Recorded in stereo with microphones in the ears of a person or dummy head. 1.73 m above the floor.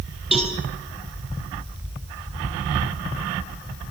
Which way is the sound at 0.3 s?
10° right (ahead or behind).